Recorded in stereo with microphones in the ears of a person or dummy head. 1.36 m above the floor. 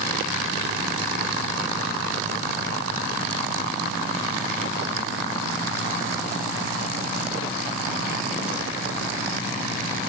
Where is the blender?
No blender in this recording.